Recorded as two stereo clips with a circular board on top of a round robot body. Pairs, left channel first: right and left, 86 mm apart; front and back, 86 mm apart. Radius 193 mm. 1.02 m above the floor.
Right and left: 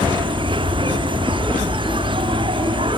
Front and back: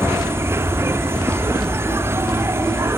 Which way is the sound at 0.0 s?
115° left.